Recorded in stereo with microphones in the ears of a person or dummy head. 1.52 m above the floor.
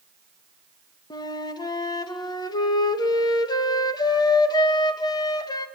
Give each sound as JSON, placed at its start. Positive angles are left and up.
{"t": 1.1, "sound": "a flute", "side_deg": 25, "distance_m": 1.9}